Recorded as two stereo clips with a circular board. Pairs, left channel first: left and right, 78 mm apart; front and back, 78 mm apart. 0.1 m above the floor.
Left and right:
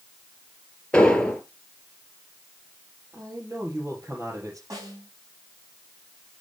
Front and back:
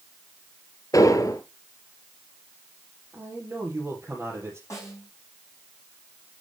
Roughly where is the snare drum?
Ahead right.